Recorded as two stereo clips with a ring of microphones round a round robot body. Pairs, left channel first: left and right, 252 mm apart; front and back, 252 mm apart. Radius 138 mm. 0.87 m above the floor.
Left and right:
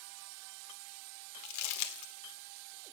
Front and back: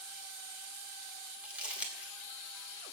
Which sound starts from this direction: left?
Crumpling, at 1.4 s.